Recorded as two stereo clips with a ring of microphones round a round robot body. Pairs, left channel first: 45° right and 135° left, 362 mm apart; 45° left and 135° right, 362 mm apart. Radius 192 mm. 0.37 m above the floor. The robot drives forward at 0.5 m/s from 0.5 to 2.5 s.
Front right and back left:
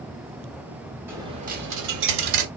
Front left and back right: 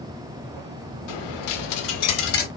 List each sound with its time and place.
1.1 s a dropped coin: 50° left, 0.7 m; by 2.5 s 115° left, 0.6 m